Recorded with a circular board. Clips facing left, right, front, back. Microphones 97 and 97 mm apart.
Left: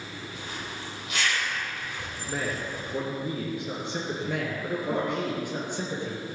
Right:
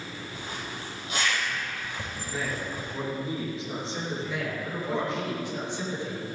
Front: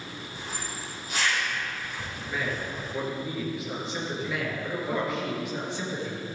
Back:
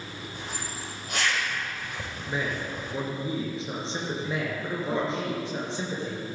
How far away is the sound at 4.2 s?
About 4 m.